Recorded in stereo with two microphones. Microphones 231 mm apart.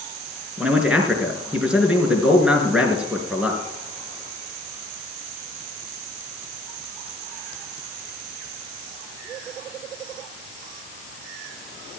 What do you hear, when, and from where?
0.6 s a man speaking: 5° right (ahead or behind), 4.5 m